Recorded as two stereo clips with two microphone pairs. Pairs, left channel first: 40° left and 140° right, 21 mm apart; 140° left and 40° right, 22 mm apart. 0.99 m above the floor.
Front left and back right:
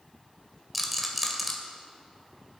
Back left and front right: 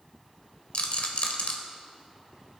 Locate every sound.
0.7 s a rattle: 135° left, 2 m